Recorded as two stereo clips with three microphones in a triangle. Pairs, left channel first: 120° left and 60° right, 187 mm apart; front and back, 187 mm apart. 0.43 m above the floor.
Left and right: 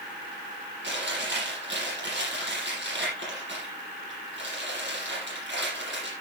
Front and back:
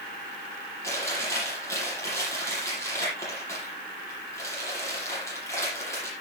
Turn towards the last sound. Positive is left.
turn(degrees=-75)